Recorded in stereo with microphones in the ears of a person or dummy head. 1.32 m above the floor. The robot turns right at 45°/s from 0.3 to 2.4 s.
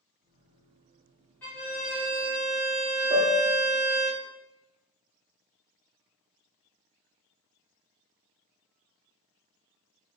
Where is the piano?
30° right (ahead or behind), 0.6 m.